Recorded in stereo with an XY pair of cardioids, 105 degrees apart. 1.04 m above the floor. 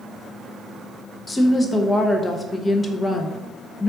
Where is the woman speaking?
25° left, 0.8 m.